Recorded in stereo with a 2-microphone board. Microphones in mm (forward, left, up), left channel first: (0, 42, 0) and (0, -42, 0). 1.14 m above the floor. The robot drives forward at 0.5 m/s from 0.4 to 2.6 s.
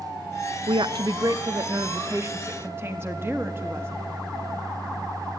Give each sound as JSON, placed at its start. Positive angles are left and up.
{"t": 0.7, "sound": "a woman speaking", "side_deg": -80, "distance_m": 0.5}